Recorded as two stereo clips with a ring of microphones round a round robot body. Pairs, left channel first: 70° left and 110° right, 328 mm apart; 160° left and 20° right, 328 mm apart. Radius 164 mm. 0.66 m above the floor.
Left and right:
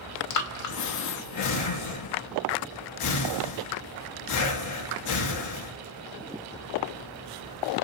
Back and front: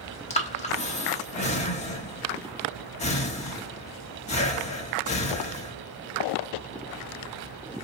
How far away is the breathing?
About 1.0 m.